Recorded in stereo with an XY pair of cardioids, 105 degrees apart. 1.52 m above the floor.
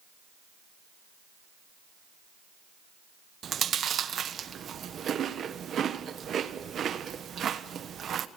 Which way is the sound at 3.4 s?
50° right.